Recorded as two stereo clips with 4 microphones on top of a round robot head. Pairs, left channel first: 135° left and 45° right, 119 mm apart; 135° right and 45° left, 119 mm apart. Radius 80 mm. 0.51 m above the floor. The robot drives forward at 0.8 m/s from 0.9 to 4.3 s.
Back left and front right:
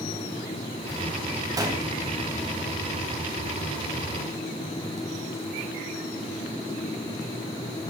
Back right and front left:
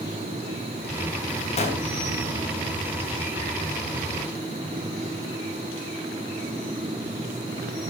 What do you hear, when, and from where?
1.6 s a gunshot: 105° right, 3.5 m